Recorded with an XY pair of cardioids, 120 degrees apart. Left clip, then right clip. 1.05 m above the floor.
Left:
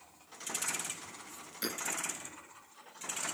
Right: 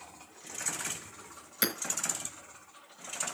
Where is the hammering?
65° right, 4 m.